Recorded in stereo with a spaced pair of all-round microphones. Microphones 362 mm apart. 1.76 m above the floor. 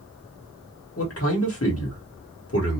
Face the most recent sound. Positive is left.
turn(degrees=40)  # may be behind; listen again after turning